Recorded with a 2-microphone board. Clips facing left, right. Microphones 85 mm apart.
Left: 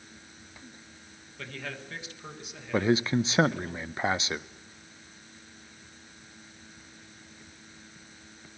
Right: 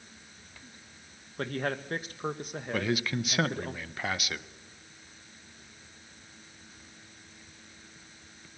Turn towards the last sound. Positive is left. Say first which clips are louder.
# left 6 dB
turn(degrees=25)  # may be behind; listen again after turning